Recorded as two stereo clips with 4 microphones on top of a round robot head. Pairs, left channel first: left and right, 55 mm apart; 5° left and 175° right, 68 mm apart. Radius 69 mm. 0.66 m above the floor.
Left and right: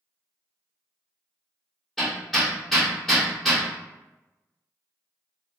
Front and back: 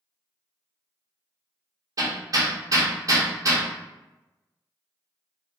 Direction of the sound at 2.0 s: Straight behind.